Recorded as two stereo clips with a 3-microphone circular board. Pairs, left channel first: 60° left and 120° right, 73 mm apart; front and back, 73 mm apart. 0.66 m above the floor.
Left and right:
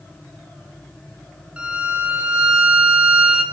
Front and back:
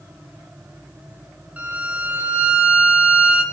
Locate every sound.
1.6 s a violin: 160° right, 1.1 m